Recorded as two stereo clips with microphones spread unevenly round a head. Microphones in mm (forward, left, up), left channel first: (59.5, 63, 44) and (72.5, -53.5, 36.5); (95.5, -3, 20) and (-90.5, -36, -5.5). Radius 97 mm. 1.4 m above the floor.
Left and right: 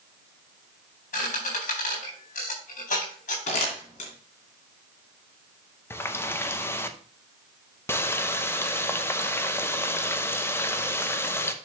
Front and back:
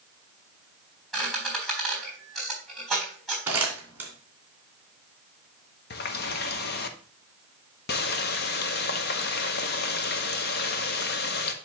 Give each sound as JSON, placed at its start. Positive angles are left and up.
{"t": 1.1, "sound": "a squeak", "azimuth_deg": 100, "distance_m": 4.0}
{"t": 3.5, "sound": "crumpling", "azimuth_deg": 105, "distance_m": 2.5}
{"t": 5.9, "sound": "a running tap", "azimuth_deg": 30, "distance_m": 0.8}